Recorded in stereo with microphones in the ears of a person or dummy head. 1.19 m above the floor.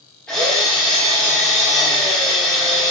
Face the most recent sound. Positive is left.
turn(degrees=10)  # may be behind; listen again after turning